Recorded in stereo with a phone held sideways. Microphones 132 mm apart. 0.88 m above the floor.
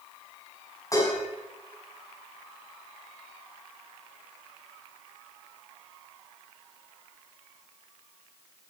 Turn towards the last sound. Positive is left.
turn(degrees=25)  # may be behind; listen again after turning